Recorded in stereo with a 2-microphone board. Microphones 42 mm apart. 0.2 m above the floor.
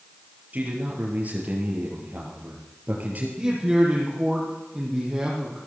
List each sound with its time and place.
0.5 s a man speaking: 35° right (ahead or behind), 4.5 m
3.4 s a man speaking: 20° right (ahead or behind), 5.5 m